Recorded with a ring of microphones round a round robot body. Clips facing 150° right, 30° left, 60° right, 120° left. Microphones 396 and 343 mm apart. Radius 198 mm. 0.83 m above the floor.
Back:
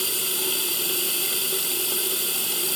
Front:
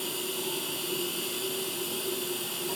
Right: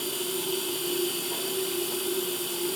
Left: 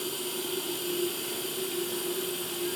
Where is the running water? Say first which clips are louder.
Back 2 dB, right 3 dB; 150° right, 1.4 m.